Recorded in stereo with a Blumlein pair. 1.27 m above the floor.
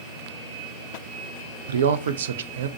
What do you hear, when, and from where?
1.7 s a man speaking: 65° right, 0.5 m